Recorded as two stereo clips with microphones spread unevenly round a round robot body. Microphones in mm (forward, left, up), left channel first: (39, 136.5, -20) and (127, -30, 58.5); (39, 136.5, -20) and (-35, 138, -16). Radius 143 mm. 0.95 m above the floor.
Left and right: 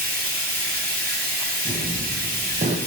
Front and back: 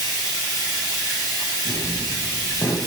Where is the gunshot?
10° left, 0.6 m.